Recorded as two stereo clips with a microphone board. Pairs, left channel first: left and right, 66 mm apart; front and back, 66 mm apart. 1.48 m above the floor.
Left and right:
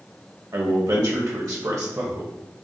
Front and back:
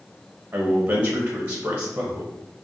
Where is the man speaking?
110° right, 1.0 m.